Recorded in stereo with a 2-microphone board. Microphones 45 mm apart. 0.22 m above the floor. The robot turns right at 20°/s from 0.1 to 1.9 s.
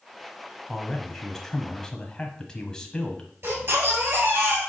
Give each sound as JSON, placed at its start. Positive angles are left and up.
{"t": 0.7, "sound": "a man speaking", "side_deg": 5, "distance_m": 1.2}
{"t": 3.4, "sound": "a baby crying", "side_deg": -65, "distance_m": 4.0}